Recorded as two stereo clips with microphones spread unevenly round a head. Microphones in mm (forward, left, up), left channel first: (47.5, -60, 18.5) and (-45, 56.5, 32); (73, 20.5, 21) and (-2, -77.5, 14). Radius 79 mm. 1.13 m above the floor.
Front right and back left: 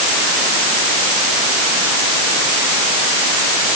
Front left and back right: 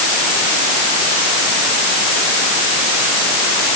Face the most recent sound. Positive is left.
No sound to turn to.